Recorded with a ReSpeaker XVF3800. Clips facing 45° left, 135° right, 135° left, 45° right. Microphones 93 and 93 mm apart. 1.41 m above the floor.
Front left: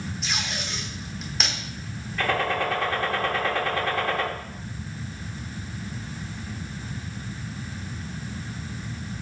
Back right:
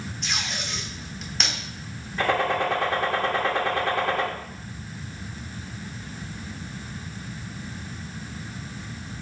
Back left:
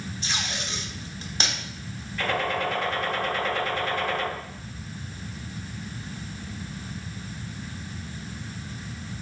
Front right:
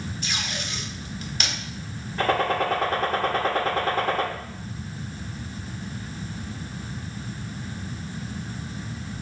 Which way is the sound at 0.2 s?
130° left.